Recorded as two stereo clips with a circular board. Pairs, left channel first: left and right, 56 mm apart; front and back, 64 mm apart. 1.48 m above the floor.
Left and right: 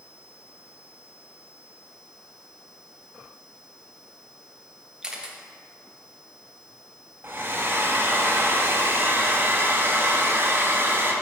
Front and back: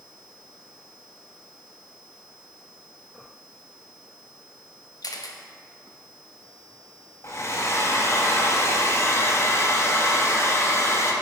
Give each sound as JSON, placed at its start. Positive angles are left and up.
{"t": 5.0, "sound": "a camera shutter", "azimuth_deg": -10, "distance_m": 1.0}
{"t": 7.2, "sound": "a hair dryer", "azimuth_deg": -40, "distance_m": 1.2}